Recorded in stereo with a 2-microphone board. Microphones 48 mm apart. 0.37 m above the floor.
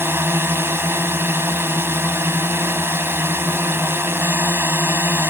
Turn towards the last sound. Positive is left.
turn(degrees=-60)  # may be behind; listen again after turning